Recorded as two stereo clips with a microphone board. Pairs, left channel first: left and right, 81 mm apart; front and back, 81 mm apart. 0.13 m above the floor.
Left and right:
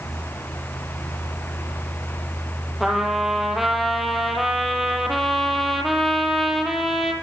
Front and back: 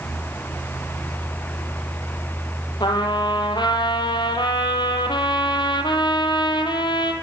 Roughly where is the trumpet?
Ahead.